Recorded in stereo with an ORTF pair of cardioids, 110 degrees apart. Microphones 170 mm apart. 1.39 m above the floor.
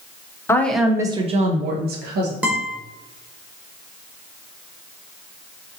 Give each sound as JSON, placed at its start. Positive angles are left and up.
{"t": 0.5, "sound": "a woman speaking", "azimuth_deg": 15, "distance_m": 0.9}
{"t": 2.4, "sound": "a guitar", "azimuth_deg": -10, "distance_m": 1.5}